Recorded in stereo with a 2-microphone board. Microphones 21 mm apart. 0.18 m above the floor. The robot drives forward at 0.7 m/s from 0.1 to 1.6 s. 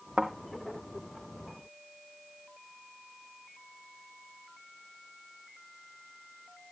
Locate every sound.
0.2 s a thud: 55° right (ahead or behind), 2 m